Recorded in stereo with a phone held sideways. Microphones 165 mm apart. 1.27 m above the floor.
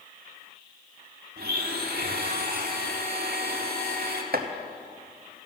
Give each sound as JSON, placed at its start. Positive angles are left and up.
{"t": 1.4, "sound": "a blender", "side_deg": -70, "distance_m": 1.5}
{"t": 4.3, "sound": "chopping", "side_deg": -65, "distance_m": 0.8}